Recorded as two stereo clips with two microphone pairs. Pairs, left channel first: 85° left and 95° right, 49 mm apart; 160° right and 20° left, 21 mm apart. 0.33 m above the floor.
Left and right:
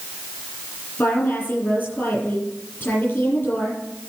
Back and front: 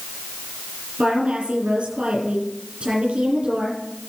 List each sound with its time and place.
1.0 s a woman speaking: 25° left, 7 m